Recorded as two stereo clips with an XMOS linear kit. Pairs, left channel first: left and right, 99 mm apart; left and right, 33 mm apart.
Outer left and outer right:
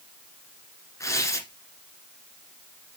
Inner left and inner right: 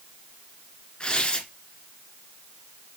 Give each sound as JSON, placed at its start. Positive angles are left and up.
{"t": 1.0, "sound": "tearing paper", "side_deg": 30, "distance_m": 1.6}